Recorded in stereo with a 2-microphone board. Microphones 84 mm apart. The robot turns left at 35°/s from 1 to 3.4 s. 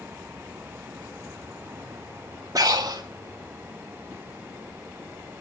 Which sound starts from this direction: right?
Breathing, at 2.5 s.